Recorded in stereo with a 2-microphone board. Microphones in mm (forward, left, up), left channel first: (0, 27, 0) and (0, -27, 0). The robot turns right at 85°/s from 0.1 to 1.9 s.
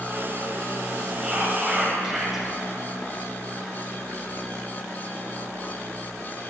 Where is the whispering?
25° right (ahead or behind), 1.4 m; by 2.5 s 5° right (ahead or behind), 1.4 m.